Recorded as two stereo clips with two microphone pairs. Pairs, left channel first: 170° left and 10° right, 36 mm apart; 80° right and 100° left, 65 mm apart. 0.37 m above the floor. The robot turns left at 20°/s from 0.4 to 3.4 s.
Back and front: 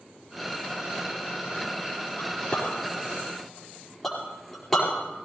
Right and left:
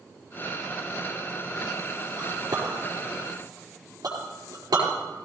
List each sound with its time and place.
2.2 s a clink: 110° left, 5 m; by 5.2 s 90° left, 5 m